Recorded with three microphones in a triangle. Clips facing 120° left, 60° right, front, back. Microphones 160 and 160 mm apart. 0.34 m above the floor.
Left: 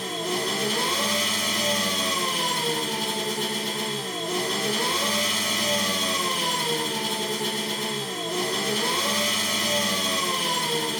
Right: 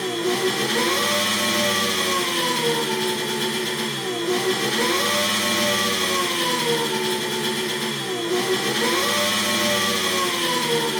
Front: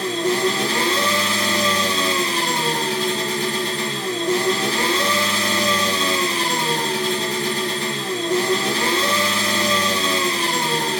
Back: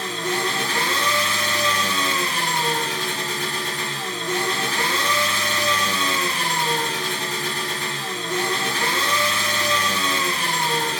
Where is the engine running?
55° right, 3.5 m.